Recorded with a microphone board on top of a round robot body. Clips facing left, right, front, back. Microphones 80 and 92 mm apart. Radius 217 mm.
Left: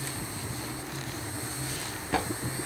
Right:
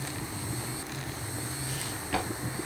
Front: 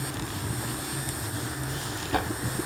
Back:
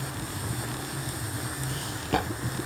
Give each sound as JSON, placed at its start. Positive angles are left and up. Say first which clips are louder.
{"t": 1.7, "sound": "footsteps", "louder": "left 2 dB, back 1 dB", "azimuth_deg": 160, "distance_m": 1.8}